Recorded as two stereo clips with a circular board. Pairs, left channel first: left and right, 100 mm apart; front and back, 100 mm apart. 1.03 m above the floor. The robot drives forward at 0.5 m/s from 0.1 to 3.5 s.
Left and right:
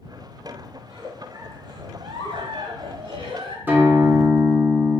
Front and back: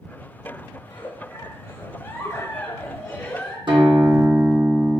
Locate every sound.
0.8 s a giggle: 40° right, 2 m; by 3.6 s 85° right, 1.4 m
3.7 s a guitar: 160° right, 0.7 m